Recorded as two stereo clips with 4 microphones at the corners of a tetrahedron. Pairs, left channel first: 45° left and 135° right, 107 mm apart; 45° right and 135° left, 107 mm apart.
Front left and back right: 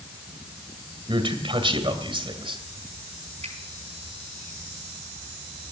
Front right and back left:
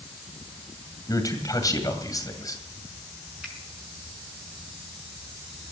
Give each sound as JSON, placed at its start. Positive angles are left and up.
{"t": 1.1, "sound": "a man speaking", "azimuth_deg": -100, "distance_m": 2.0}
{"t": 3.4, "sound": "a finger snap", "azimuth_deg": -145, "distance_m": 4.5}